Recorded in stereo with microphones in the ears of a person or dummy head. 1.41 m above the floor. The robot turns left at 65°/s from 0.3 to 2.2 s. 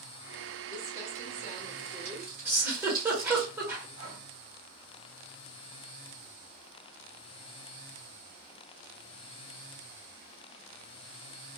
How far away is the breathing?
About 1.9 m.